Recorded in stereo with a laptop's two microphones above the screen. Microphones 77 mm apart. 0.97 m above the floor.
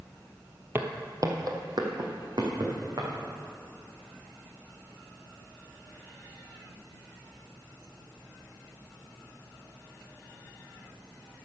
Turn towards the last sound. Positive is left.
turn(degrees=-70)  # may be behind; listen again after turning